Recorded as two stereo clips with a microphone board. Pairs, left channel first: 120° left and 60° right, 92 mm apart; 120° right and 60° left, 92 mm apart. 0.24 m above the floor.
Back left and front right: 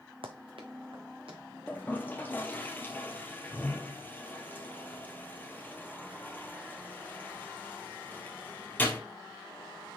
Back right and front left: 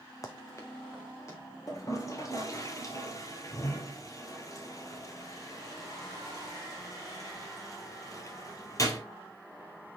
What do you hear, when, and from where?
0.2 s running footsteps: 70° right, 1.1 m; by 1.4 s 65° right, 3 m
1.7 s a toilet flushing: 170° right, 1.5 m